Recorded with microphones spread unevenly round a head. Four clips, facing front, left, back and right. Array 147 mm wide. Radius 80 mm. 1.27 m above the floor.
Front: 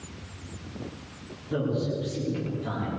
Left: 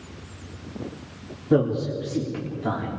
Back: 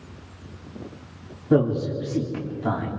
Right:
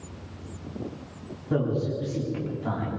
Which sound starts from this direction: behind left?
A man speaking, at 1.5 s.